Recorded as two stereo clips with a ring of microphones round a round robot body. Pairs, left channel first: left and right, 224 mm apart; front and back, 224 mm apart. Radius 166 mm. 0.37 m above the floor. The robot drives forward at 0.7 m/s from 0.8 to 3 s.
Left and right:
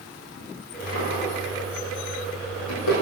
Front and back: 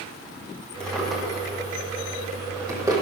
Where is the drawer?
85° left, 4.5 m; by 3.0 s 105° left, 4.5 m.